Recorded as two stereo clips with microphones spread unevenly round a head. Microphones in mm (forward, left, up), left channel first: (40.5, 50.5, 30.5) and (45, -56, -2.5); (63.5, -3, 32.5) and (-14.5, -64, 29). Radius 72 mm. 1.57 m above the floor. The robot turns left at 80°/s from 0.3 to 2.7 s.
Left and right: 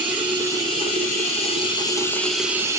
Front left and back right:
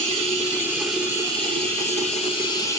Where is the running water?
175° left, 1.5 m; by 2.8 s 20° right, 1.5 m.